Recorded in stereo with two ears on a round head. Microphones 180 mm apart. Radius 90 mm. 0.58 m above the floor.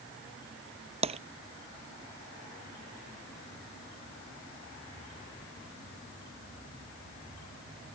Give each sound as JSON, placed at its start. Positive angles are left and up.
{"t": 1.0, "sound": "tapping", "side_deg": -30}